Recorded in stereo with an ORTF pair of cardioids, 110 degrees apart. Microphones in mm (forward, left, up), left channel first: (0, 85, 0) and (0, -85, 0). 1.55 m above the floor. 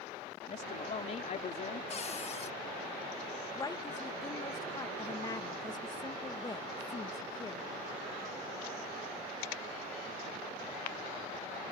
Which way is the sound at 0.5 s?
45° left.